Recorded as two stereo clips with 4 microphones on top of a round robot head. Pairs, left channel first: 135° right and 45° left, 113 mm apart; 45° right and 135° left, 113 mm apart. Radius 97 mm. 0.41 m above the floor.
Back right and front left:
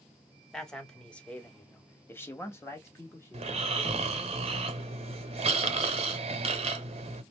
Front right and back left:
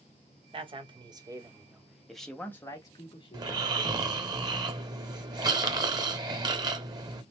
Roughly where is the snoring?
Left.